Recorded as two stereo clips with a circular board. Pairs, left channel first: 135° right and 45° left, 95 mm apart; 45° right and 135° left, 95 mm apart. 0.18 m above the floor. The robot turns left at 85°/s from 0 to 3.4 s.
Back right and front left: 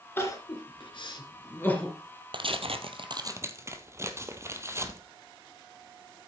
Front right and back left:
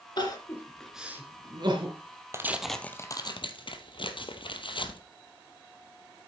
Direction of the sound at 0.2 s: 75° right.